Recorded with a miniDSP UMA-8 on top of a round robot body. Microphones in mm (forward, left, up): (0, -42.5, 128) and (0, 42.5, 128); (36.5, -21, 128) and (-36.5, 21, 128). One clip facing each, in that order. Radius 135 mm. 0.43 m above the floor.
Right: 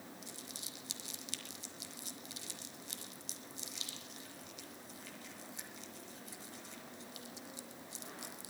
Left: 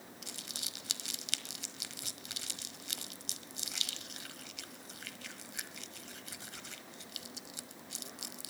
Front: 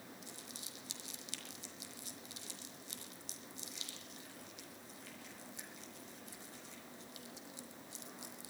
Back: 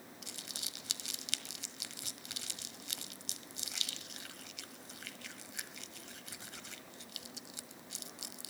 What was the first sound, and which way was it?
Crumpling, 120° left.